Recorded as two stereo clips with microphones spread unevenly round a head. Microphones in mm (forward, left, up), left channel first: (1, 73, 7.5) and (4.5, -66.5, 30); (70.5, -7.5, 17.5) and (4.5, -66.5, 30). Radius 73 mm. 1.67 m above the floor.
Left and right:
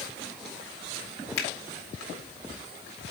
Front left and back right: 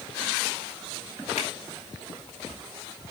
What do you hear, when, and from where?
1.4 s a finger snap: 75° left, 1.9 m